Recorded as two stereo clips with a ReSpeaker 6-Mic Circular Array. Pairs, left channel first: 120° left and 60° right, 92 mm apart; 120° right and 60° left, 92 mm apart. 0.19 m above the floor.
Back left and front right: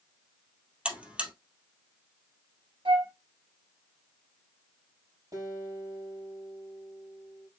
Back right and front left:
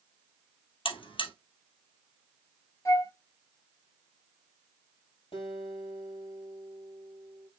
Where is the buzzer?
135° right, 2 m.